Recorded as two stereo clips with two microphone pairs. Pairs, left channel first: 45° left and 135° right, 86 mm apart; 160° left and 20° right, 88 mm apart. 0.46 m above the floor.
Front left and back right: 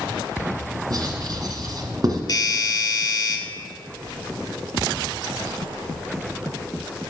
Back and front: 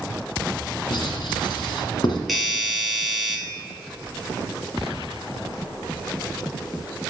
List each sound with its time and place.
0.9 s writing: 175° right, 1.7 m
2.3 s a doorbell: 65° left, 1.8 m